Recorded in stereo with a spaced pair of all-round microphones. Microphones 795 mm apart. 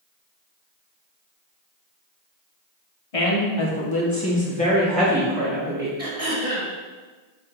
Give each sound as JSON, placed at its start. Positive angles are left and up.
{"t": 3.1, "sound": "a woman speaking", "side_deg": 50, "distance_m": 0.9}
{"t": 6.0, "sound": "throat clearing", "side_deg": -20, "distance_m": 1.4}